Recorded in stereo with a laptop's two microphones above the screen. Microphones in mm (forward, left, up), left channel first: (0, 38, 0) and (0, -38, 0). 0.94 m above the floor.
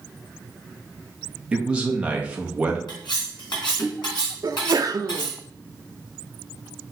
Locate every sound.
1.5 s a man speaking: 15° right (ahead or behind), 0.8 m
2.9 s cutlery clinking: 85° left, 2.5 m
4.4 s a sneeze: 55° right (ahead or behind), 0.5 m